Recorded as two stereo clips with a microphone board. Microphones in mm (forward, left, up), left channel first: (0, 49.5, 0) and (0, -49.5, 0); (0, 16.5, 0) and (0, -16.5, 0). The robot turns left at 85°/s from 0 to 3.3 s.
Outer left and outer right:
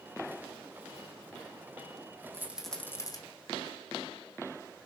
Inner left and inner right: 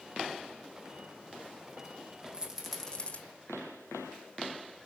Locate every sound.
2.3 s a rattle: 25° right (ahead or behind), 4 m; by 3.2 s 45° left (ahead or behind), 4 m